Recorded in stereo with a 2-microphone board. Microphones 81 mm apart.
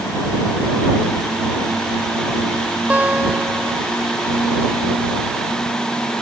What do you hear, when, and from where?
2.9 s a guitar: 20° right (ahead or behind)